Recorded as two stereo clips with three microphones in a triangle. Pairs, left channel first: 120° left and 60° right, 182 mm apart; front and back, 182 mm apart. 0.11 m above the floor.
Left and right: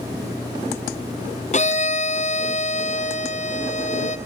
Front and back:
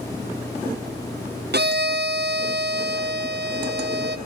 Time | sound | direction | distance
1.5 | a violin | 165° left | 1.2 m